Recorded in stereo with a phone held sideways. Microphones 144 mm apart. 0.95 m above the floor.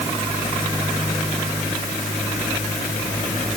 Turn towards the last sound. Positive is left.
No sound to turn to.